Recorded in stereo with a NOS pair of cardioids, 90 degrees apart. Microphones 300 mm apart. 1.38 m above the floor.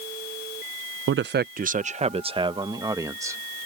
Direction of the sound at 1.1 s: 45° right.